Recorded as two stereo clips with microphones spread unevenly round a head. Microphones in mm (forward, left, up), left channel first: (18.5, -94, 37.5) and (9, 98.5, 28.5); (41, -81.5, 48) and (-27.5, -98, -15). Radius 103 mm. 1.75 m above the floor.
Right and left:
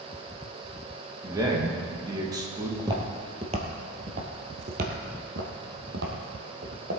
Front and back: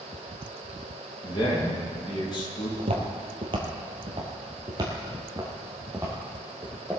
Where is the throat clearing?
No throat clearing in this recording.